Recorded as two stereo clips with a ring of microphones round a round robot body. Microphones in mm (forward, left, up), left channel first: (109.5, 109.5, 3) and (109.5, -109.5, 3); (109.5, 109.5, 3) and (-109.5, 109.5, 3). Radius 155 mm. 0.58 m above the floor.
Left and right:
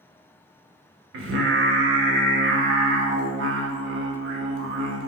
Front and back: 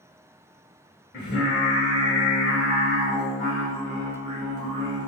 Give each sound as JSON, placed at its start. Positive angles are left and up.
{"t": 1.1, "sound": "singing", "azimuth_deg": -60, "distance_m": 0.9}